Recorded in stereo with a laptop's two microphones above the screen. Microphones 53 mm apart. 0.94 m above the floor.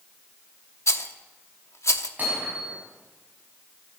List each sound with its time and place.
0.9 s a rattle: 70° left (ahead or behind), 0.9 m
2.2 s hammering: 35° right (ahead or behind), 6 m